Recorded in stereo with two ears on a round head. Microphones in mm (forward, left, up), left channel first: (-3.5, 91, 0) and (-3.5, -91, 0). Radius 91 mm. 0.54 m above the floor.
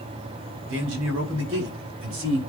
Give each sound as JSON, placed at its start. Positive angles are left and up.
{"t": 0.7, "sound": "a man speaking", "side_deg": -75, "distance_m": 4.0}